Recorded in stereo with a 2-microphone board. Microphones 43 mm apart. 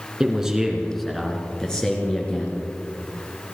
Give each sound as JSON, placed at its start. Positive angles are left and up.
{"t": 0.2, "sound": "a man speaking", "side_deg": -15, "distance_m": 3.0}